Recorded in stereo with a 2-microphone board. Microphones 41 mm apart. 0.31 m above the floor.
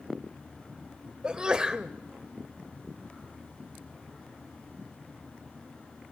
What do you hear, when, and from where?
1.2 s a sneeze: 20° right (ahead or behind), 0.9 m